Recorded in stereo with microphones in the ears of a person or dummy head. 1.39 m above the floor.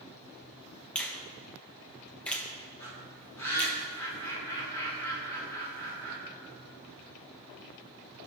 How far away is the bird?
About 3 m.